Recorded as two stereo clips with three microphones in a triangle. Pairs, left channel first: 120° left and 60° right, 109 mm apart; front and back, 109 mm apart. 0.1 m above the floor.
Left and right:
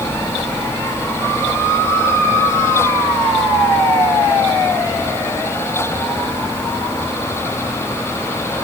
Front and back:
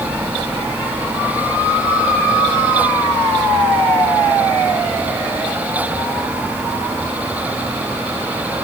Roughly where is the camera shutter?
No camera shutter in this recording.